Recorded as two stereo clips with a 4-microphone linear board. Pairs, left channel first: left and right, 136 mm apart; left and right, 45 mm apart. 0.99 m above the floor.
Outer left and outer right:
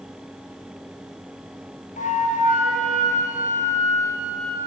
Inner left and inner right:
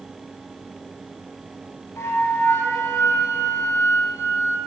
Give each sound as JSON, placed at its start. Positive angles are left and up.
{"t": 2.0, "sound": "a flute", "side_deg": 70, "distance_m": 0.6}